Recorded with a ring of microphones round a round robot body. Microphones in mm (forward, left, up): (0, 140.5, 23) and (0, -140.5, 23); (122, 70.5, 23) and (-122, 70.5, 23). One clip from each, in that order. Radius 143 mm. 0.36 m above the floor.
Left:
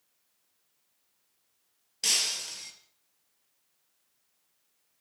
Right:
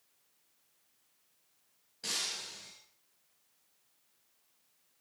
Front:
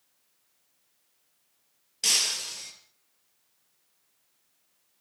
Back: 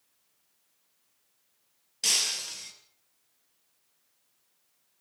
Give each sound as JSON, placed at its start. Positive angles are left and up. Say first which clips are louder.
{"t": 2.0, "sound": "breaking glass", "louder": "left 9 dB, front 2 dB", "azimuth_deg": 85, "distance_m": 5.0}